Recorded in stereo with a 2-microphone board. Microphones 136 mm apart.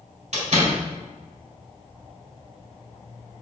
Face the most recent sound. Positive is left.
turn(degrees=-65)  # may be behind; listen again after turning